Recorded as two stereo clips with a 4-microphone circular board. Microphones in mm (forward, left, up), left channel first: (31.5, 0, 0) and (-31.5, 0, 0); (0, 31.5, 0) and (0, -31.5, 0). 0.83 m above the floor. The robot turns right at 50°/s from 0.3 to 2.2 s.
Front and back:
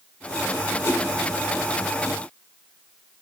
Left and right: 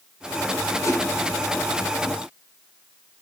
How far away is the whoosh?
About 2 m.